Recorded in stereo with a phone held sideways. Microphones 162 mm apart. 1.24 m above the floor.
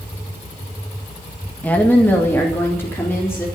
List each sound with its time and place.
1.6 s a woman speaking: 10° left (ahead or behind), 1.8 m; by 3.5 s 15° left (ahead or behind), 4.5 m